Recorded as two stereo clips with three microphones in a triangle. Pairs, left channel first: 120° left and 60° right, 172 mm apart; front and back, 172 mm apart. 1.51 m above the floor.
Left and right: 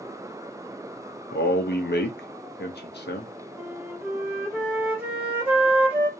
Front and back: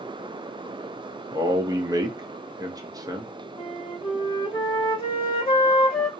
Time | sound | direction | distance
1.3 | a man speaking | 115° left | 0.6 m
3.6 | a flute | 10° left | 1.0 m